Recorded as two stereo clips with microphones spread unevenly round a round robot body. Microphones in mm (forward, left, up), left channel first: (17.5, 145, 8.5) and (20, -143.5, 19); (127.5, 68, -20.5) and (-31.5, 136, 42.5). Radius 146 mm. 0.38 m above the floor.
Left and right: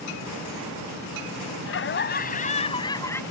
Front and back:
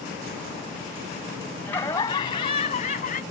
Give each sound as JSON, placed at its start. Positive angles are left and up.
{"t": 1.6, "sound": "laughter", "azimuth_deg": 50}